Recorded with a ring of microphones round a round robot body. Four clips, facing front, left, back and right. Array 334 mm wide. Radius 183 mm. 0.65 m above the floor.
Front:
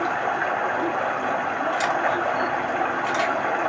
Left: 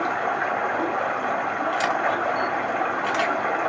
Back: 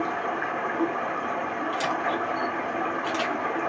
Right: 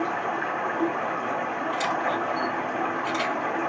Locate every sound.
0.0 s running water: 50° left, 2.5 m
1.7 s a camera shutter: 75° left, 3 m